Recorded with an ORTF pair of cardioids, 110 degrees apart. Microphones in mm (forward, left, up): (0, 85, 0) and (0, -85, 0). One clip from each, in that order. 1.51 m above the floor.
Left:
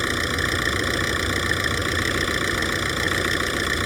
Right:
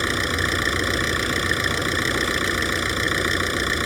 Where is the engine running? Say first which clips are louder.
Right 1 dB; 10° right.